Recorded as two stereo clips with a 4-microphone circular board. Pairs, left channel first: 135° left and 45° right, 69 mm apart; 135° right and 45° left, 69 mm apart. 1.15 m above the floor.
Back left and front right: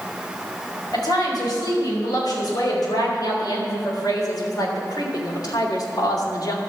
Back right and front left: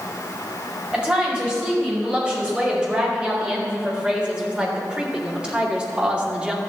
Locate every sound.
0.9 s a woman speaking: 120° left, 5.5 m; by 6.6 s 115° left, 2.5 m